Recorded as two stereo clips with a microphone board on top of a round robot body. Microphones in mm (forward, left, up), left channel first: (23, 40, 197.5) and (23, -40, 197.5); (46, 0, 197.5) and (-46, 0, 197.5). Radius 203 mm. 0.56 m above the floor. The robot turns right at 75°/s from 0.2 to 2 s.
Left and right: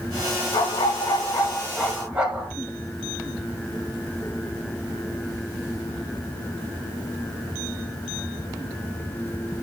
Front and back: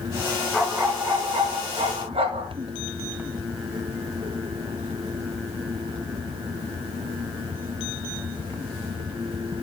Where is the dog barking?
85° left, 2.5 m; by 2.5 s 165° right, 2.5 m.